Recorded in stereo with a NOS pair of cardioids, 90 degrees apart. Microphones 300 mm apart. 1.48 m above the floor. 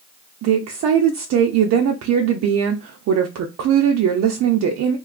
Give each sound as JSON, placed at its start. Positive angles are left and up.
{"t": 0.4, "sound": "a woman speaking", "azimuth_deg": -65, "distance_m": 0.6}